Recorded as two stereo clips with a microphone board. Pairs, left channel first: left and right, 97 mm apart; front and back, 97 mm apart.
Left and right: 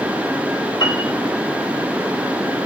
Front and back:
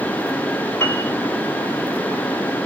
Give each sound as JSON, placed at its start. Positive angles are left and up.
{"t": 0.8, "sound": "a piano", "azimuth_deg": 60, "distance_m": 3.0}